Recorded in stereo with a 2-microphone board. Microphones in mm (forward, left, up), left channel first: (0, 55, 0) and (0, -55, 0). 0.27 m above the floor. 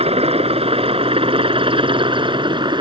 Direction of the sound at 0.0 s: 60° right (ahead or behind).